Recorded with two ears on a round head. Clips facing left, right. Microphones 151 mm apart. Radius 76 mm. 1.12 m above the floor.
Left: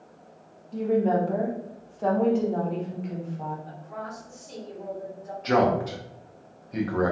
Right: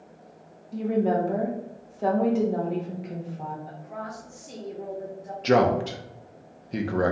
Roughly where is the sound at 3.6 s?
Right.